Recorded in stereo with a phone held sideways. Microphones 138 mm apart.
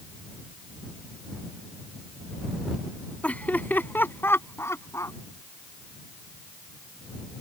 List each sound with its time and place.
3.2 s laughter: 10° left (ahead or behind); by 5.2 s 20° left (ahead or behind)